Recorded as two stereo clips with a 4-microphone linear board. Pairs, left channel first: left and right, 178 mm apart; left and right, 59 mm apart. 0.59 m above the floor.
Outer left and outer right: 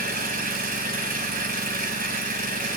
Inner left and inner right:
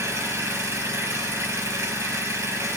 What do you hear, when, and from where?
0.0 s an engine running: 50° right (ahead or behind), 4 m